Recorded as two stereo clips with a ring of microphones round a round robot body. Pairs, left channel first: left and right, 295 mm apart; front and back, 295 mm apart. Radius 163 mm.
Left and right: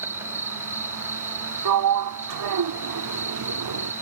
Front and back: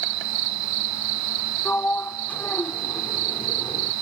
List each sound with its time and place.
0.0 s an insect: 175° right
1.6 s a sliding door: 85° right